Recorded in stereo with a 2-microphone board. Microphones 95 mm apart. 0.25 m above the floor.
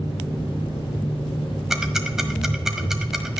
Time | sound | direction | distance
0.0 | an engine running | 65° left (ahead or behind) | 2.5 m
1.7 | ticking | 5° right (ahead or behind) | 1.3 m